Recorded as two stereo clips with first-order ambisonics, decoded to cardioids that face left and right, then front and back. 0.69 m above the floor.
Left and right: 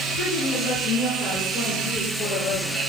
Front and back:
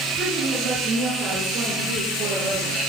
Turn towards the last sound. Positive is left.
turn(degrees=120)